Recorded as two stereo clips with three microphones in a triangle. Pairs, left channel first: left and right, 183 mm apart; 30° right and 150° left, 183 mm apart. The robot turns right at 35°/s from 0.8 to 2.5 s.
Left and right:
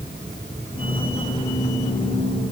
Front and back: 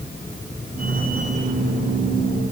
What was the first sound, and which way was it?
Only background noise.